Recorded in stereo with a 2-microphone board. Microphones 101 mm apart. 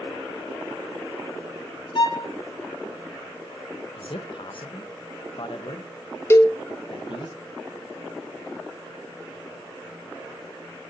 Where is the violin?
55° left (ahead or behind), 1.9 m.